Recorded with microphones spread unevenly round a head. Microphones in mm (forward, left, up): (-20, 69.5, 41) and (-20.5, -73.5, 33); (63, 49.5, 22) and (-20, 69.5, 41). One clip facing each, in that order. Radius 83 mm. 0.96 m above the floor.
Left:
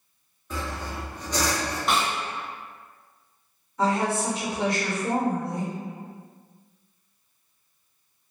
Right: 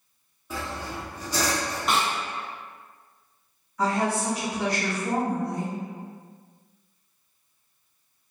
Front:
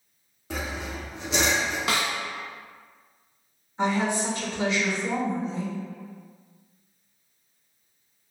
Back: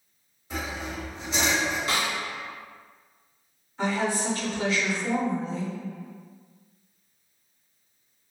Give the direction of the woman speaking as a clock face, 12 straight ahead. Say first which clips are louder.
Left 1 dB, front 2 dB; 11 o'clock.